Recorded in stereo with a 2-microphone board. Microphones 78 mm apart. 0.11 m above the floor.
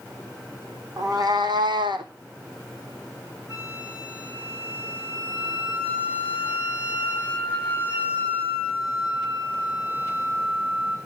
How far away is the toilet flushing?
I don't hear a toilet flushing.